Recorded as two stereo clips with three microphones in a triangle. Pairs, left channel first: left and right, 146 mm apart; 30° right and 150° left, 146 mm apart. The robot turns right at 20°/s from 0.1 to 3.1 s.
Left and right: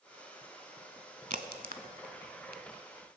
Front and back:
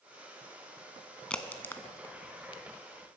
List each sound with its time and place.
1.3 s a crack: 115° right, 0.7 m; by 2.6 s 85° right, 0.7 m